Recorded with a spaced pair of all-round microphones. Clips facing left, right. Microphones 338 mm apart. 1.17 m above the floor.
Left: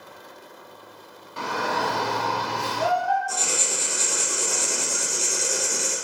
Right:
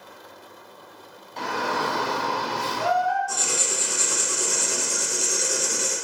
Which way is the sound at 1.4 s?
10° left (ahead or behind).